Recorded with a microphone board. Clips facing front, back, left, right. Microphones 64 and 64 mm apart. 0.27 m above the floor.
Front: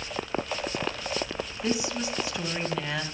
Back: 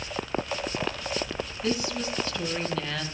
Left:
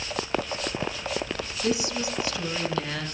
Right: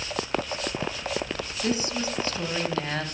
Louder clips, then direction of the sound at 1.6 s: Even, left 1 dB; 70° right.